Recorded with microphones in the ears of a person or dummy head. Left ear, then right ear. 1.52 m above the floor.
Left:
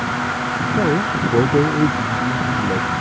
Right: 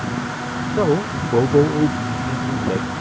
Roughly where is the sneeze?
No sneeze in this recording.